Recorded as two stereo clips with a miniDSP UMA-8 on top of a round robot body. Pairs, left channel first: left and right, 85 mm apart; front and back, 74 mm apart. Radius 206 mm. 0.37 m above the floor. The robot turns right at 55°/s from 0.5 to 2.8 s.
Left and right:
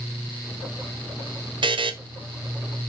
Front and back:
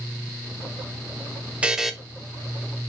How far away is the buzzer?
About 1.5 m.